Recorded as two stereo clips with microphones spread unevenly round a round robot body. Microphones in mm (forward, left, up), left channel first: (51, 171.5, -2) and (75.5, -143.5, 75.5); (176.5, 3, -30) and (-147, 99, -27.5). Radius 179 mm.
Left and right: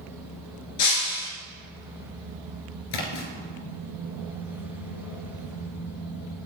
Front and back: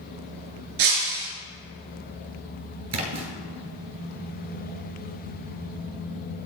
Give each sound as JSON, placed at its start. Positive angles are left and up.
{"t": 0.8, "sound": "breaking glass", "azimuth_deg": 140, "distance_m": 3.5}
{"t": 2.9, "sound": "a splash", "azimuth_deg": 120, "distance_m": 2.5}